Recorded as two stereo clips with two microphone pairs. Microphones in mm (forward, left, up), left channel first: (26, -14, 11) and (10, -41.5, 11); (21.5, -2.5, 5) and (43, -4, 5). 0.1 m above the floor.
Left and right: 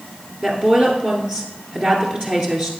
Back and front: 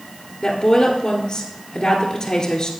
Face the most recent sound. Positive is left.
turn(degrees=-155)